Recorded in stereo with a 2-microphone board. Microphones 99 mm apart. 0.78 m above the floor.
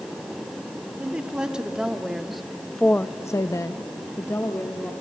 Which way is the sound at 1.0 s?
10° right (ahead or behind).